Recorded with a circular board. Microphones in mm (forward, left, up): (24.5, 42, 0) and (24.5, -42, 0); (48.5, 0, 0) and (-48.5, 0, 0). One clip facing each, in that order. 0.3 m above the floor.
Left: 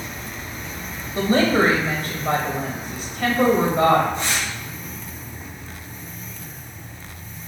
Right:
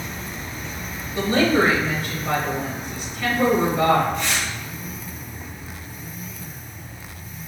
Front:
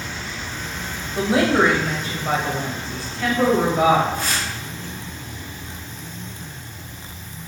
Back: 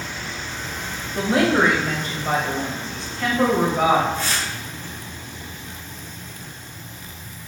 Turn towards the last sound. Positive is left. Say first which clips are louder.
# even, even
turn(degrees=30)